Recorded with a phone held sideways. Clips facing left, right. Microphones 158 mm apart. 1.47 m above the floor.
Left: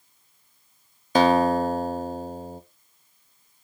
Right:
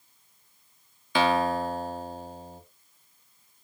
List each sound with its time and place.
1.1 s a guitar: 40° left (ahead or behind), 0.5 m